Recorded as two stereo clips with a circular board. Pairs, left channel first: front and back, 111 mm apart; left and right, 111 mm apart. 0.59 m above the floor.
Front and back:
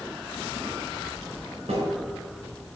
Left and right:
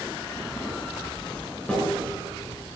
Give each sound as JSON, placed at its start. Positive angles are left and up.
{"t": 1.7, "sound": "a snare drum", "azimuth_deg": 165, "distance_m": 4.0}